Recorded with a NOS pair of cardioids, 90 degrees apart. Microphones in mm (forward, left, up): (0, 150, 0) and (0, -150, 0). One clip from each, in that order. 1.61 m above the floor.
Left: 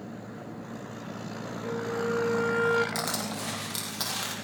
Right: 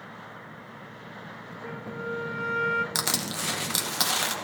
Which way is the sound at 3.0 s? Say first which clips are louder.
Right 3 dB; 50° right.